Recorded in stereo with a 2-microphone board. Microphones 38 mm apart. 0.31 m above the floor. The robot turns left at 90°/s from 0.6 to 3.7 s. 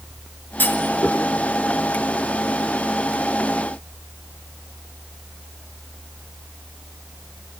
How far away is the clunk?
About 4.5 m.